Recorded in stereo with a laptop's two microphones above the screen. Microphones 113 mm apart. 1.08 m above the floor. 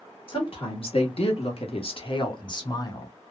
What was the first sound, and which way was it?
A woman speaking, 50° left (ahead or behind).